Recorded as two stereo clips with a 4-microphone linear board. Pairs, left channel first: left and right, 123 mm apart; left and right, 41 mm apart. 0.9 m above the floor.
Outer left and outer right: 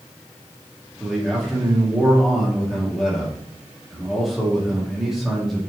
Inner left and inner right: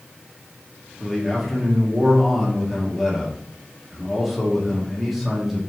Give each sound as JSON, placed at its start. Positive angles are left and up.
{"t": 1.0, "sound": "a man speaking", "side_deg": 0, "distance_m": 1.5}